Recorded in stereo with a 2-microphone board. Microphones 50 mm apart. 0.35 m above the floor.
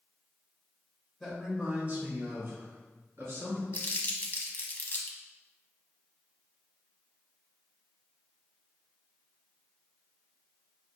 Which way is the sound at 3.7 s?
40° left (ahead or behind).